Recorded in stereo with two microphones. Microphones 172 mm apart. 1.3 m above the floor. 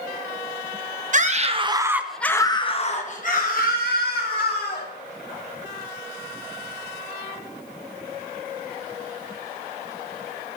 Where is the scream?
50° right (ahead or behind), 0.8 m; by 4.9 s 70° left (ahead or behind), 1.8 m.